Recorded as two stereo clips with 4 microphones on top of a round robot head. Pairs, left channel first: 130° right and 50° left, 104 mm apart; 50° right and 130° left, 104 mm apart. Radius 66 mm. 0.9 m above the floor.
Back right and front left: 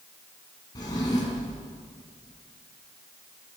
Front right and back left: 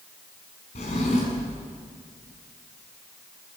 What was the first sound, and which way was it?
A drawer, 75° right.